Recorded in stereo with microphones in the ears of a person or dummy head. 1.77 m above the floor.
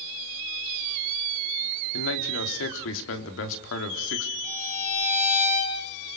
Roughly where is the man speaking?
Left.